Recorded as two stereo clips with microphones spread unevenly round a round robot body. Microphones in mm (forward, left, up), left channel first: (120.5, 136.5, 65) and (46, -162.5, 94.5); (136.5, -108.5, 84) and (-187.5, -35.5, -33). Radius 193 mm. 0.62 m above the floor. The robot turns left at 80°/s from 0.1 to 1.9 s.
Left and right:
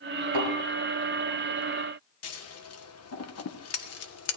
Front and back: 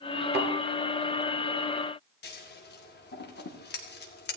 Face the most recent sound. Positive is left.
turn(degrees=60)